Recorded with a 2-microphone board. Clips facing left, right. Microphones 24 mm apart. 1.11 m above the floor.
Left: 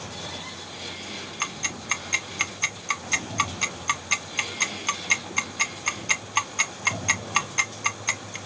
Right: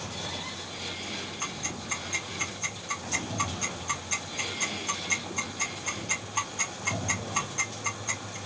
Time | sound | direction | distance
1.4 | ticking | 75° left (ahead or behind) | 0.6 m